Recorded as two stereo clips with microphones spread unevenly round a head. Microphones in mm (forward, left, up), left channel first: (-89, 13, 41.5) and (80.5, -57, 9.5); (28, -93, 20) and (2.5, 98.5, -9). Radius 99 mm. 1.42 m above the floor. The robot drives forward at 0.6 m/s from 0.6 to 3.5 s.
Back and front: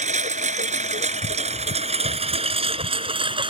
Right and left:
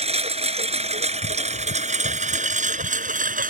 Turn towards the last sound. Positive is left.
turn(degrees=45)